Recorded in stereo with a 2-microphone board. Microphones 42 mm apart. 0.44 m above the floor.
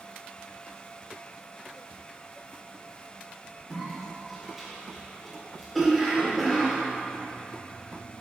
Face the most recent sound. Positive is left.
turn(degrees=0)  # may be behind; listen again after turning